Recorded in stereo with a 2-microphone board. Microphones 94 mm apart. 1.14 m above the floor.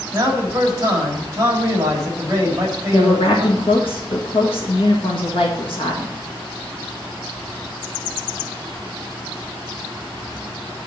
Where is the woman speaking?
65° left (ahead or behind), 1.7 m.